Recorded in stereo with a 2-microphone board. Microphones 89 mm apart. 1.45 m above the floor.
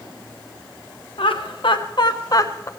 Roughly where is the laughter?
Left.